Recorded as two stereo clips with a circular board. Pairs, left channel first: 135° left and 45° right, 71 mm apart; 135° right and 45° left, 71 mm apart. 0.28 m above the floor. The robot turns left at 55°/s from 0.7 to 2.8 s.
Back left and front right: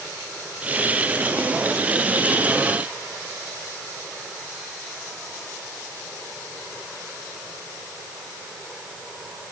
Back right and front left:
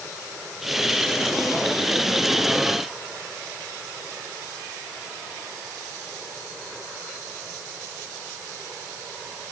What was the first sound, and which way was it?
Only background noise.